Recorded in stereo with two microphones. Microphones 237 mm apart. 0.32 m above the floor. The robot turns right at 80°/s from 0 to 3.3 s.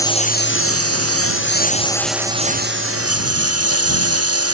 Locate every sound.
0.0 s a lawn mower: 10° left; by 4.5 s 85° right